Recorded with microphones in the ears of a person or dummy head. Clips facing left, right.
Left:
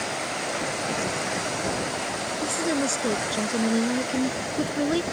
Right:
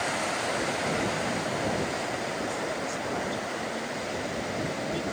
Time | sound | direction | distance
2.4 | a woman speaking | 80° left | ?